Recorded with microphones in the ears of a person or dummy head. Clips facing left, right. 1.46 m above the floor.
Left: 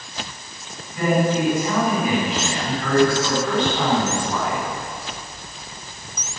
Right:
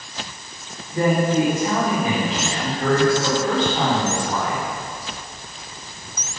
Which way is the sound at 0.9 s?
25° right (ahead or behind).